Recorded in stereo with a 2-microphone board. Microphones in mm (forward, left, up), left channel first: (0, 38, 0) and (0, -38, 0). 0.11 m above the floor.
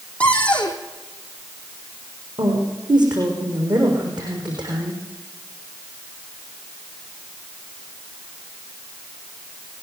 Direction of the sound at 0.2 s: 15° left (ahead or behind).